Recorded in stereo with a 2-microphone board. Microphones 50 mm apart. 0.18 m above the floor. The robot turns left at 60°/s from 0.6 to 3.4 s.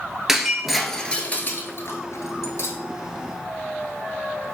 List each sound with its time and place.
0.3 s breaking glass: 10° right (ahead or behind), 0.7 m; by 2.8 s 55° left (ahead or behind), 0.7 m